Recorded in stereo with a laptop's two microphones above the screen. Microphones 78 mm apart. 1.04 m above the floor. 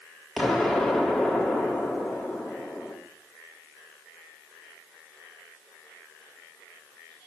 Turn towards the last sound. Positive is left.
turn(degrees=0)  # may be behind; listen again after turning